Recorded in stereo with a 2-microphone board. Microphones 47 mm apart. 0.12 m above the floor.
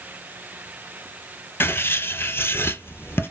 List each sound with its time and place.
1.6 s writing: 55° left (ahead or behind), 0.6 m